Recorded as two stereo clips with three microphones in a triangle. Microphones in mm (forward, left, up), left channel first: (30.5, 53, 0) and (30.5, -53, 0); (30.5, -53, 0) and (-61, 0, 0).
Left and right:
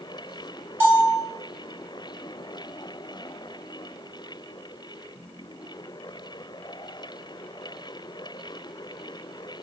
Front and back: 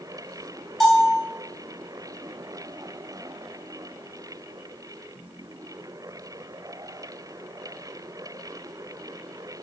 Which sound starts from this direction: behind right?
A bell, at 0.8 s.